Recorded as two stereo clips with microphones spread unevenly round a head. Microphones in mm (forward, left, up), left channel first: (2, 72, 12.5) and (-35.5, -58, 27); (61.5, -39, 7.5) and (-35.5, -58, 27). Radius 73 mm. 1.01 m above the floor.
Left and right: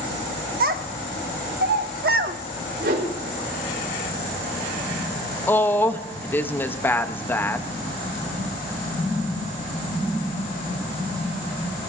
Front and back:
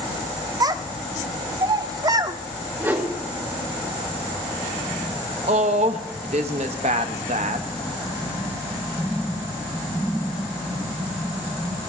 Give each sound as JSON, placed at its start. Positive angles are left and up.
{"t": 0.6, "sound": "a child speaking", "azimuth_deg": -120, "distance_m": 1.1}
{"t": 2.8, "sound": "a whoosh", "azimuth_deg": -100, "distance_m": 4.5}
{"t": 5.5, "sound": "a woman speaking", "azimuth_deg": 150, "distance_m": 1.0}